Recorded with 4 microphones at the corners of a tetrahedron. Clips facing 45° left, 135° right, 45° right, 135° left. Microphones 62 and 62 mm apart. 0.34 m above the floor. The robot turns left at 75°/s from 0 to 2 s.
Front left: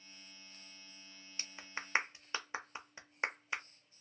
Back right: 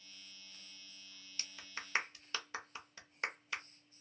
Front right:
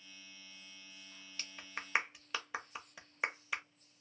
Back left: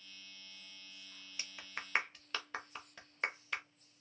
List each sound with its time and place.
1.4 s a clap: 65° left, 0.6 m; by 3.6 s 20° left, 0.6 m